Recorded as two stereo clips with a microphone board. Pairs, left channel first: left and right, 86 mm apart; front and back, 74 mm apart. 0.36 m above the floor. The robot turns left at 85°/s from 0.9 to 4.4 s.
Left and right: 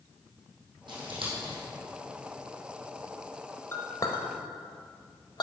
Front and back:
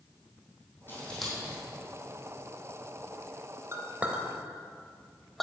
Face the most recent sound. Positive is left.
turn(degrees=85)